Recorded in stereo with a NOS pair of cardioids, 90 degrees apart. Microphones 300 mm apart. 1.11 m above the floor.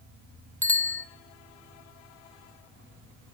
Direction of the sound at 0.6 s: 5° left.